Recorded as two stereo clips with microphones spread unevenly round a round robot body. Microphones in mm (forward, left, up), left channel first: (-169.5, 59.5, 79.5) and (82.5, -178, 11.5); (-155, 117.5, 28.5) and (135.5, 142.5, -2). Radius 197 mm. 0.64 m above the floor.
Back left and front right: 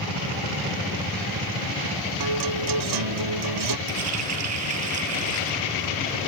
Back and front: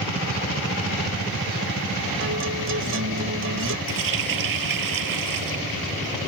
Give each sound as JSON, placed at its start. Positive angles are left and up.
{"t": 2.2, "sound": "a guitar", "azimuth_deg": -50}
{"t": 3.9, "sound": "a running tap", "azimuth_deg": 10}